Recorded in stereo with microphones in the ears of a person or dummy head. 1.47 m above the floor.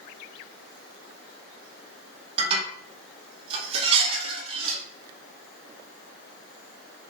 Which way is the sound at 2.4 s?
40° right (ahead or behind).